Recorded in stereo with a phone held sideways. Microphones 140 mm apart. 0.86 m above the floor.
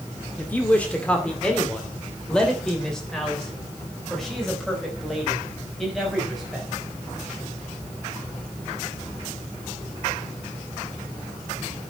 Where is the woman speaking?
10° left (ahead or behind), 2 m; by 6.7 s centre (ahead or behind), 5 m.